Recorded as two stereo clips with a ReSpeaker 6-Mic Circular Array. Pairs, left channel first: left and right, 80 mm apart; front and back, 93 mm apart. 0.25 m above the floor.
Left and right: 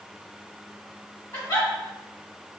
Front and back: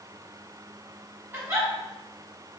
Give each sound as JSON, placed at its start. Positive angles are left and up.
{"t": 1.3, "sound": "a giggle", "azimuth_deg": 125, "distance_m": 1.4}